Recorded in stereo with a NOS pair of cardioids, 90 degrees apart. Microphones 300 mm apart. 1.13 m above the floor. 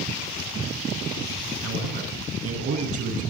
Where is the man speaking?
50° right, 9 m.